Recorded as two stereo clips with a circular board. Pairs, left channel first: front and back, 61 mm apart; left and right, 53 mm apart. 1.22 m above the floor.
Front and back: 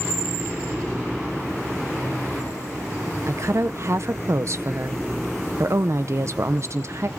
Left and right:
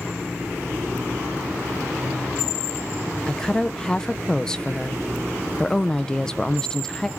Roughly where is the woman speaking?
Behind.